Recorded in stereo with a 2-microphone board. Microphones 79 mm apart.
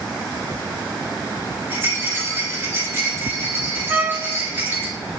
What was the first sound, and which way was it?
A rattle, 25° right (ahead or behind).